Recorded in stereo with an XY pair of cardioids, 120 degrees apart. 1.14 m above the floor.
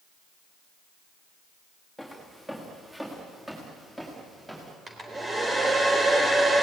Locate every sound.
2.0 s footsteps: 5° right, 5.5 m; by 4.8 s 10° right, 7.5 m
4.9 s a hair dryer: 25° right, 3.5 m